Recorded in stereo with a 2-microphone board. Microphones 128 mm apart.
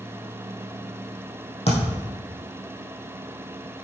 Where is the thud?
55° left (ahead or behind), 3 m.